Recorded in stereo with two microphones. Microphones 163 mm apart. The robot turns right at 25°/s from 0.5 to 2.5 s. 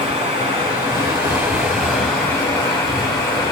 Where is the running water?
35° right, 4 m; by 3.5 s 15° left, 4 m.